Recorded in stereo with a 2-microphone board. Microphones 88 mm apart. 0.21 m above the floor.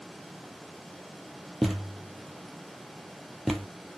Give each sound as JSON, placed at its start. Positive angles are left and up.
{"t": 1.6, "sound": "a thud", "side_deg": 0, "distance_m": 1.2}